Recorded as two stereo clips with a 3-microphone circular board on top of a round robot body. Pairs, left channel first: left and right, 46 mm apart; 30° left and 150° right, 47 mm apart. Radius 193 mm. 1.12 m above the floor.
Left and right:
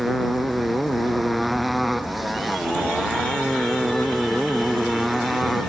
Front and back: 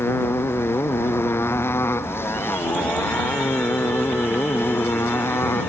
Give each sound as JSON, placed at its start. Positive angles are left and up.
{"t": 0.0, "sound": "a motorcycle", "azimuth_deg": 0}